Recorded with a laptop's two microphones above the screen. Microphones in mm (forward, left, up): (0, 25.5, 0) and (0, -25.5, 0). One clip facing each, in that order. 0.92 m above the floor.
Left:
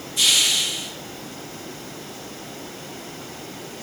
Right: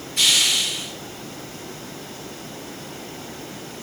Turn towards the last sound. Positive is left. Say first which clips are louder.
# right 1 dB
turn(degrees=-55)  # may be behind; listen again after turning